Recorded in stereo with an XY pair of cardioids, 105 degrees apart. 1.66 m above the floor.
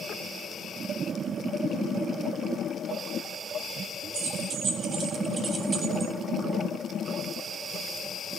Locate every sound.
4.1 s keys jangling: 65° right, 2.5 m; by 6.1 s 35° right, 1.6 m